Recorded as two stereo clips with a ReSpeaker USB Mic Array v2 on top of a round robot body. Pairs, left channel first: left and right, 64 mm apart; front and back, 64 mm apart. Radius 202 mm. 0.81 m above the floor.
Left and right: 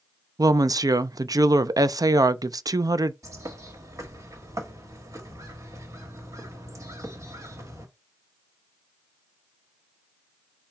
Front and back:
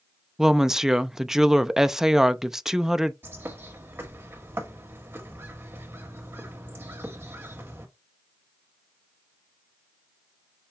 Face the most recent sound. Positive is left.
turn(degrees=-125)